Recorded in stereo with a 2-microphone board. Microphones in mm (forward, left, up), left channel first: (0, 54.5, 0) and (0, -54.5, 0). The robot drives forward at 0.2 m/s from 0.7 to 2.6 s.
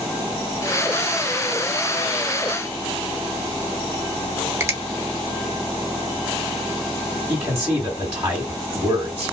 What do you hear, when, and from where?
4.6 s a finger snap: 25° right (ahead or behind), 0.6 m
7.3 s a man speaking: 25° right (ahead or behind), 1.4 m